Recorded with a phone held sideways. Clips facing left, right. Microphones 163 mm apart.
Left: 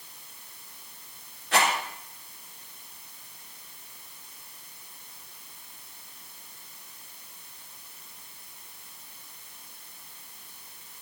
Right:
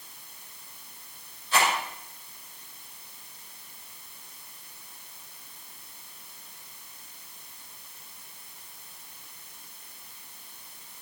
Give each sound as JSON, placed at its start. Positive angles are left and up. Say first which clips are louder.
{"t": 1.5, "sound": "a rattle", "louder": "left 1 dB", "side_deg": 75, "distance_m": 4.0}